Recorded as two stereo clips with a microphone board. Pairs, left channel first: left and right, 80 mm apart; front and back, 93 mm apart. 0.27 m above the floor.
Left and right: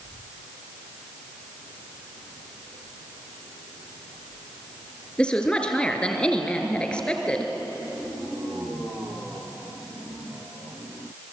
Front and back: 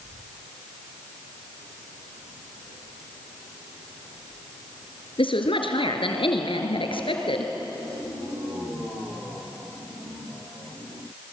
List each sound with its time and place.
5.2 s a woman speaking: 10° left, 3.5 m